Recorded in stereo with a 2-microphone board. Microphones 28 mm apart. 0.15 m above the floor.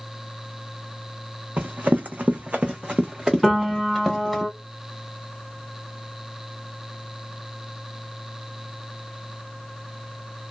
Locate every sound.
1.6 s running footsteps: 85° right, 0.8 m; by 4.4 s centre (ahead or behind), 1.3 m
3.4 s a piano: 5° left (ahead or behind), 1.2 m